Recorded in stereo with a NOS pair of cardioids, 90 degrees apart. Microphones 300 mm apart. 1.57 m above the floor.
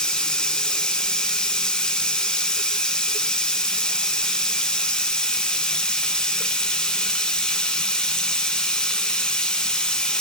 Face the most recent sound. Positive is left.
turn(degrees=5)